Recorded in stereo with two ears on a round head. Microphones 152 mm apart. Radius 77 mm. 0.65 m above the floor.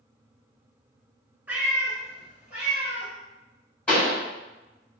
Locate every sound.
1.5 s a cat meowing: 10° right (ahead or behind), 1.0 m
3.9 s a pop: 10° left (ahead or behind), 1.9 m